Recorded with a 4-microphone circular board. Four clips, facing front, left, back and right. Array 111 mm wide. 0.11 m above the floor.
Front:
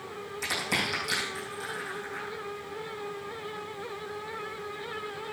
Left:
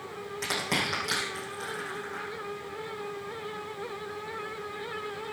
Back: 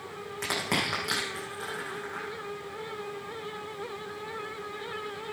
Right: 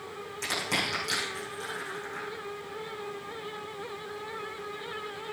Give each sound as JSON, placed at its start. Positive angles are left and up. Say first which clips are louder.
{"t": 0.4, "sound": "crushing", "louder": "left 1 dB, back 2 dB", "azimuth_deg": 165, "distance_m": 6.5}